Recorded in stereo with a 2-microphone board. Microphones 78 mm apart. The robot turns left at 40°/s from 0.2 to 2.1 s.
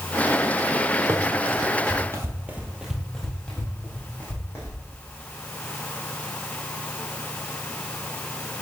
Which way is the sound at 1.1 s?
40° right (ahead or behind).